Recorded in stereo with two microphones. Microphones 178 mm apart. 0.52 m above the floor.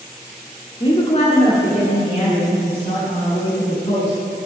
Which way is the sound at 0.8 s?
25° left (ahead or behind).